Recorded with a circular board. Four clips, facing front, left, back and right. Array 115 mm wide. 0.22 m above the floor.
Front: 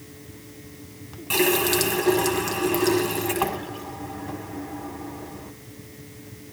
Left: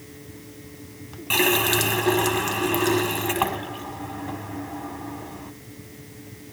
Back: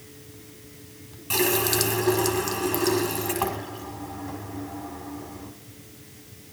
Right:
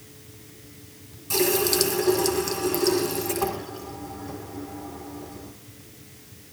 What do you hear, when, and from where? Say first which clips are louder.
1.3 s a running tap: left 1 dB, front 3 dB; 80° left, 1.0 m